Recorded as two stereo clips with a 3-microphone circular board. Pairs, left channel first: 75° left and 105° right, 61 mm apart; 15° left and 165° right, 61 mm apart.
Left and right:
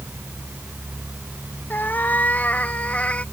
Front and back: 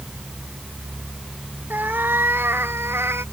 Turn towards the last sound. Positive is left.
turn(degrees=145)